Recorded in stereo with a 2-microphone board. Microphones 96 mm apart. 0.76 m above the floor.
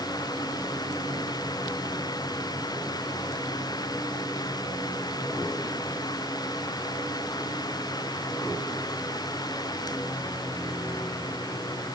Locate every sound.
Only background noise.